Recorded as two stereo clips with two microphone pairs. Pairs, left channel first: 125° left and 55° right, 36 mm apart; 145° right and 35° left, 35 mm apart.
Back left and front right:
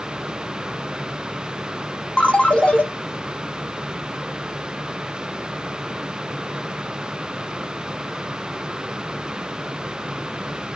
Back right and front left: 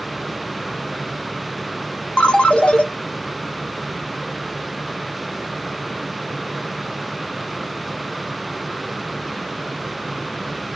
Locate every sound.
2.2 s a ringtone: 175° left, 0.5 m